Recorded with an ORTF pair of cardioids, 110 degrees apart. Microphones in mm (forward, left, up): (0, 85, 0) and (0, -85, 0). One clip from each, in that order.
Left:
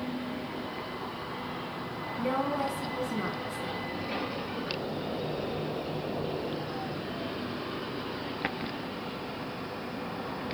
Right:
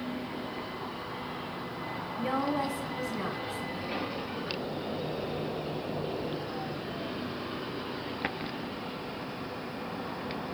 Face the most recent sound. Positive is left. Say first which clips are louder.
# left 1 dB
turn(degrees=-10)